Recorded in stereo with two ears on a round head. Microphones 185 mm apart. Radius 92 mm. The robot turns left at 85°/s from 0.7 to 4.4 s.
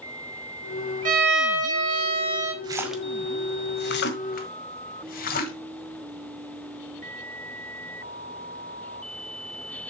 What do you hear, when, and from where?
1.1 s a violin: 40° right, 2.5 m; by 2.5 s 170° right, 2.5 m
2.6 s a splash: 20° right (ahead or behind), 1.7 m; by 5.5 s 45° left (ahead or behind), 1.7 m